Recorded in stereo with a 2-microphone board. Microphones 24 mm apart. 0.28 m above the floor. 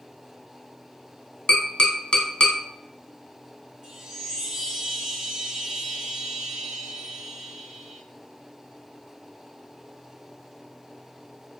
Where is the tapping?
45° left (ahead or behind), 0.8 m.